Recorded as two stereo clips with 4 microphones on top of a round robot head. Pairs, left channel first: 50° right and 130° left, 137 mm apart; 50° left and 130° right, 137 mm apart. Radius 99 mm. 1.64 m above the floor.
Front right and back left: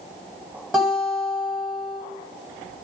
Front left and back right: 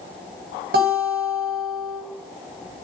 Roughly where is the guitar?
Behind right.